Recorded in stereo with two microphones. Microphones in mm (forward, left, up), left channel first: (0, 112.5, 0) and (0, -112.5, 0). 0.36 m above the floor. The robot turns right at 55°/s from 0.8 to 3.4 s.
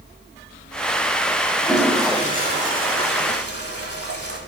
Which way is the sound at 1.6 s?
175° left.